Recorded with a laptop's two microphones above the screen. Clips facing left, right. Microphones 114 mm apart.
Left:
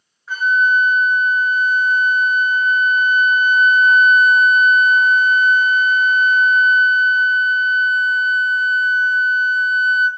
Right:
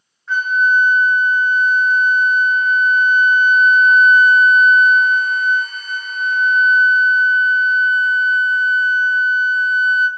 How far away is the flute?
About 0.7 m.